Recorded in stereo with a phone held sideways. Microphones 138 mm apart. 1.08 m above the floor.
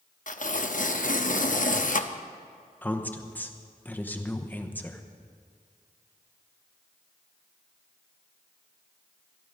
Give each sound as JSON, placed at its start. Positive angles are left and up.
{"t": 0.3, "sound": "tearing paper", "side_deg": 60, "distance_m": 0.8}
{"t": 2.8, "sound": "a woman speaking", "side_deg": 10, "distance_m": 1.0}